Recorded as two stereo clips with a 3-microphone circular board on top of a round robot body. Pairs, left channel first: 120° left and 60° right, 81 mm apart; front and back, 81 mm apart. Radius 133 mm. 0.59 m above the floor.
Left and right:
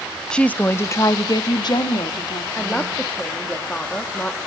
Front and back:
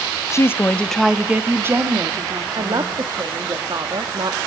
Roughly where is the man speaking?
Behind.